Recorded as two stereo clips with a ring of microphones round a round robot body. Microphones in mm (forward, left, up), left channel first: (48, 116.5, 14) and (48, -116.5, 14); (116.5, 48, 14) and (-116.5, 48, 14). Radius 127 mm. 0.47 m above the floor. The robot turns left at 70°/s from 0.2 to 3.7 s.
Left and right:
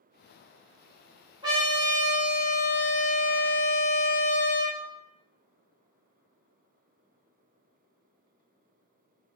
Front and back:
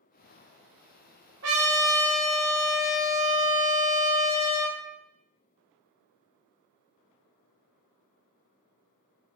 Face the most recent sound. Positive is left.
turn(degrees=45)